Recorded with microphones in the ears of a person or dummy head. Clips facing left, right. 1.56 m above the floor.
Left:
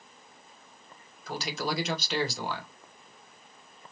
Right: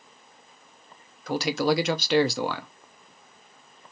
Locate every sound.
1.3 s a man speaking: 55° right (ahead or behind), 0.8 m